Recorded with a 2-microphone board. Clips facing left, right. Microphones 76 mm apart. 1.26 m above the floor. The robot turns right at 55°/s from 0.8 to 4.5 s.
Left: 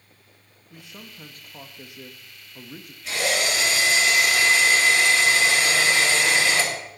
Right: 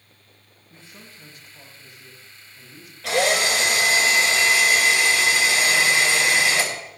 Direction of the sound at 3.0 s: 95° right.